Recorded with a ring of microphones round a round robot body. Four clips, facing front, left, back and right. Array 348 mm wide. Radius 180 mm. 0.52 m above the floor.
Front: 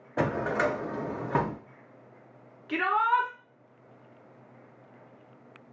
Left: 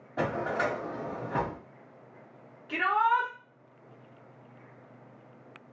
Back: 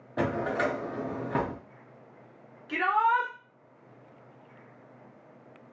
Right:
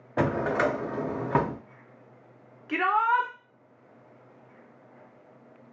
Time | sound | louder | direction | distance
0.2 | a drawer | right 4 dB, front 1 dB | 70° right | 0.6 m
2.7 | a shout | right 2 dB, even | 55° right | 0.9 m